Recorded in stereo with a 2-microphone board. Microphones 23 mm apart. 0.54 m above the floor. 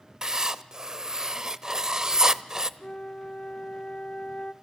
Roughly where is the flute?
Left.